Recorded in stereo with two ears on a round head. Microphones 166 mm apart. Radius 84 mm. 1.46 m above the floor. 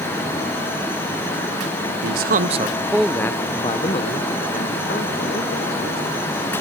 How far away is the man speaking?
About 1.1 m.